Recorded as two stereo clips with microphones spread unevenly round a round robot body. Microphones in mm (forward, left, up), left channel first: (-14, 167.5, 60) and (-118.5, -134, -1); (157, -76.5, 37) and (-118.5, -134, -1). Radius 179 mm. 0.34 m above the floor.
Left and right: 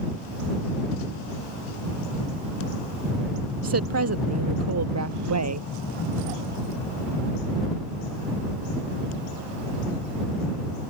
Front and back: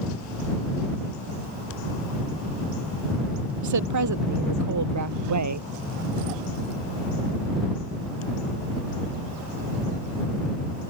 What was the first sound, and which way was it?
A woman speaking, 150° right.